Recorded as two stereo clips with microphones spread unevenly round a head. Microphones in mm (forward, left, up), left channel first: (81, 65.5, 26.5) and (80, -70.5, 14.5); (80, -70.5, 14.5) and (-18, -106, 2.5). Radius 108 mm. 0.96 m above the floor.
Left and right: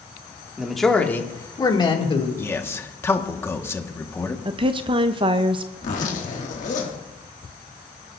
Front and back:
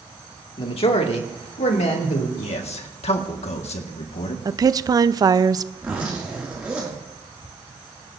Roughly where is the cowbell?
No cowbell in this recording.